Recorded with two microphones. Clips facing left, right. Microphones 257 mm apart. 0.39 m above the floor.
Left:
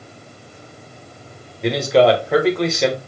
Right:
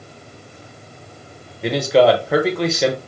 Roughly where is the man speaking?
Centre.